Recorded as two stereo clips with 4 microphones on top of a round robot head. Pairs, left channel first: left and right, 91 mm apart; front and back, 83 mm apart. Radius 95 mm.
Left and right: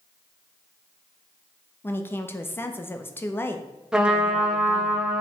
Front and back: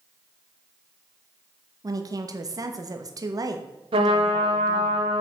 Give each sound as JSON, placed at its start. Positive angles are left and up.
{"t": 1.8, "sound": "a woman speaking", "azimuth_deg": 150, "distance_m": 1.1}
{"t": 3.9, "sound": "a trumpet", "azimuth_deg": -170, "distance_m": 1.4}